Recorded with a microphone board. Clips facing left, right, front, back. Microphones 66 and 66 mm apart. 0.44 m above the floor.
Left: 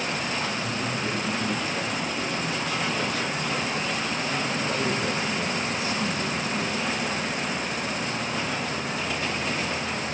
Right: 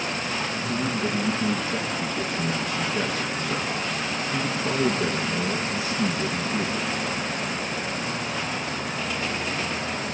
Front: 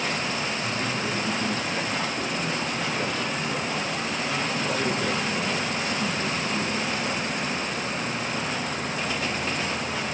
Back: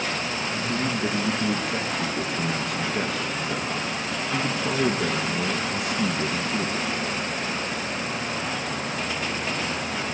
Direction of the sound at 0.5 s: 145° right.